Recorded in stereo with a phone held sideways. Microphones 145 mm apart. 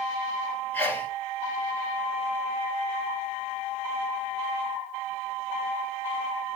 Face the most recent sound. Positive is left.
turn(degrees=10)  # may be behind; listen again after turning